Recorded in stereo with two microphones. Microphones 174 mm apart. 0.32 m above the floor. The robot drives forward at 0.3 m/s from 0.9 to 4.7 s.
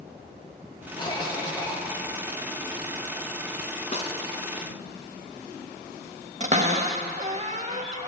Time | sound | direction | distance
1.0 | a cough | 25° left (ahead or behind) | 1.1 m
3.9 | a snare drum | 40° left (ahead or behind) | 0.7 m
6.4 | a cupboard door | 40° right (ahead or behind) | 0.6 m